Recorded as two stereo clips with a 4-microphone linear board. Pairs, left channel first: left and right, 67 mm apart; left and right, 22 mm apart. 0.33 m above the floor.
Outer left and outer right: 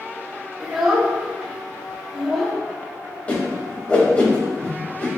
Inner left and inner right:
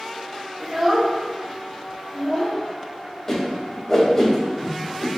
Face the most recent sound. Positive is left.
turn(degrees=20)  # may be behind; listen again after turning